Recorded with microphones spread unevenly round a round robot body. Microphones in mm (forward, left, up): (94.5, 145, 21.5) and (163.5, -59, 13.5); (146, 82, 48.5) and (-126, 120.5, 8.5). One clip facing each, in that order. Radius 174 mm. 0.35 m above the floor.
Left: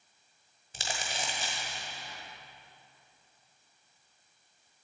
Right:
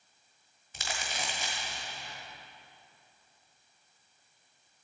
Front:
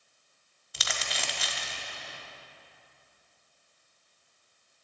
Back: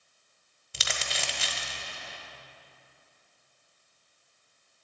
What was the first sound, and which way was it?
Crumpling, 155° left.